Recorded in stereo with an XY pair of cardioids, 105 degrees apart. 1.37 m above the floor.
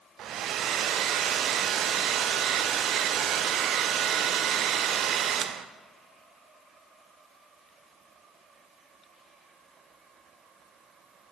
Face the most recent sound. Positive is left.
turn(degrees=-70)